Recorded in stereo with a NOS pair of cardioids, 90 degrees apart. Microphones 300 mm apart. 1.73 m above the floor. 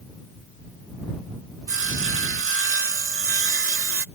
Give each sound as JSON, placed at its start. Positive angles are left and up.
{"t": 1.7, "sound": "sawing", "azimuth_deg": -45}